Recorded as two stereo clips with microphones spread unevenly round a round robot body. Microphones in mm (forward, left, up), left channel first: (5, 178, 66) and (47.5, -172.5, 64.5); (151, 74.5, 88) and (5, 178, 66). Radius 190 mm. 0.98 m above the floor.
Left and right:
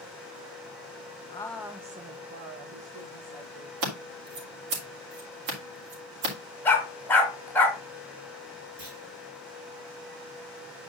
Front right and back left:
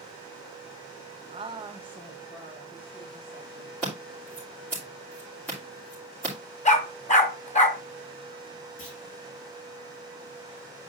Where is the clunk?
40° right, 5 m.